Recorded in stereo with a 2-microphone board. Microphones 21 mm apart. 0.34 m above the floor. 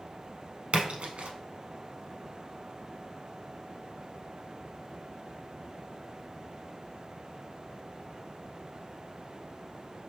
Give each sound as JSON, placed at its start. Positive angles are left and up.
{"t": 0.7, "sound": "a splash", "side_deg": -70, "distance_m": 0.7}